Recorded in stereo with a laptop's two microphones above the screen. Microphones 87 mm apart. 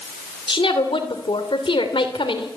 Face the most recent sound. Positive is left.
turn(degrees=75)  # may be behind; listen again after turning